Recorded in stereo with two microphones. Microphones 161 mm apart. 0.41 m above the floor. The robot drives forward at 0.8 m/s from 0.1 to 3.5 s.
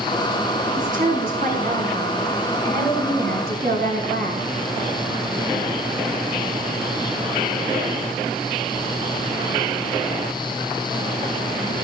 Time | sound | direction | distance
0.8 | a woman speaking | 55° right (ahead or behind) | 5 m